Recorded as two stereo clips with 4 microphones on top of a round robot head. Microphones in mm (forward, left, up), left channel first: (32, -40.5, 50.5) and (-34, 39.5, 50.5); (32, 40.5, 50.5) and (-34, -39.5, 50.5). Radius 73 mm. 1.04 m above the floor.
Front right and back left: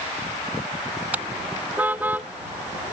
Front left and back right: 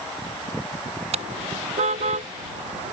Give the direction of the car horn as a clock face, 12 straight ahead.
5 o'clock.